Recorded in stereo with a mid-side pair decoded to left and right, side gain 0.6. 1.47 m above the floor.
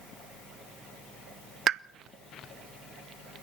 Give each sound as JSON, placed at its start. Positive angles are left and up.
{"t": 1.7, "sound": "a pop", "azimuth_deg": -40, "distance_m": 0.8}